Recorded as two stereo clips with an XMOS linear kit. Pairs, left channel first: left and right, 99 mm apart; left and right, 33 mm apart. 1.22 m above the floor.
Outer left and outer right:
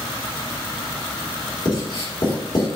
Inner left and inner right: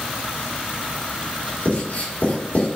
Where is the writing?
55° left (ahead or behind), 2.5 m.